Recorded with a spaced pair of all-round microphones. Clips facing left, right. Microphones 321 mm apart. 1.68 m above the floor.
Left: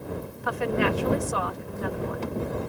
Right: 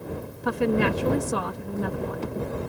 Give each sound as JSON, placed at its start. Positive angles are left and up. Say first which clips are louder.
{"t": 0.4, "sound": "a woman speaking", "louder": "right 3 dB", "side_deg": -45}